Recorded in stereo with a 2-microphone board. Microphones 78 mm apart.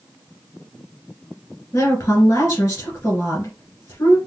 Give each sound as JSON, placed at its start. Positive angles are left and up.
{"t": 1.7, "sound": "a woman speaking", "side_deg": 30, "distance_m": 1.6}